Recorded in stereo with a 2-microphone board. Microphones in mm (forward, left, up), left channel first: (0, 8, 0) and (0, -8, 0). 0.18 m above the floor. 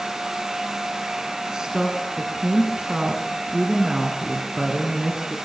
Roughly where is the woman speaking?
Right.